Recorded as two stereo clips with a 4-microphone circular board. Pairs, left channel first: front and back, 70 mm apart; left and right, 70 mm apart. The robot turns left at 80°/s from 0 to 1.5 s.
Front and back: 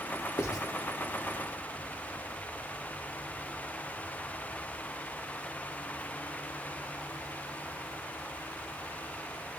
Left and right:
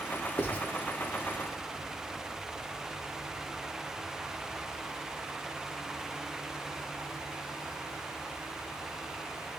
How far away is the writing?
About 0.7 m.